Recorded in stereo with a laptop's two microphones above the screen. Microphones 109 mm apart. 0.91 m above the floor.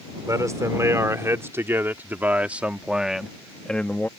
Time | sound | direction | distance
0.3 | a man speaking | 30° right (ahead or behind) | ?